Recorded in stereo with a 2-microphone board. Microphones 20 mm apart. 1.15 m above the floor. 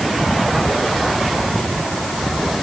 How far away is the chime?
No chime in this recording.